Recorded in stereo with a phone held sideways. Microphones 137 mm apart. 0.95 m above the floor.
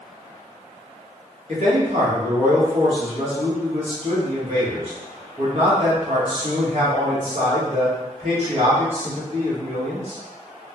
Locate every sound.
1.5 s a man speaking: 45° right (ahead or behind), 1.1 m